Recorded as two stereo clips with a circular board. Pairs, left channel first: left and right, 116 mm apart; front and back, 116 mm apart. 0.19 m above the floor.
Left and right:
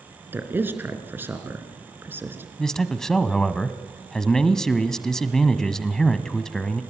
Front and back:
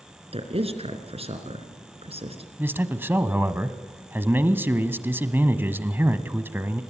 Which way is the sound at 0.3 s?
160° right.